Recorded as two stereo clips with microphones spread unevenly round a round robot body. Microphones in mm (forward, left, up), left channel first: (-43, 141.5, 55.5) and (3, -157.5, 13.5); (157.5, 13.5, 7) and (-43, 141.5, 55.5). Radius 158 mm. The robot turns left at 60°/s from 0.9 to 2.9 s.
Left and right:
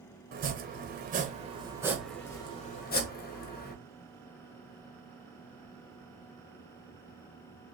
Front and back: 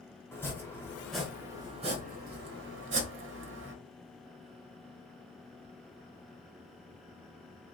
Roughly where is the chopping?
Right.